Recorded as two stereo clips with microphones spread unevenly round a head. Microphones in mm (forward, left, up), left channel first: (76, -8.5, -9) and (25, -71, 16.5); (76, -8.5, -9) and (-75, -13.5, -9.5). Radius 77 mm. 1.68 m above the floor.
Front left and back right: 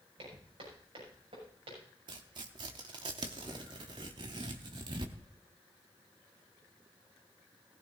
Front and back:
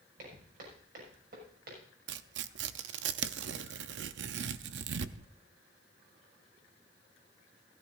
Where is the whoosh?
No whoosh in this recording.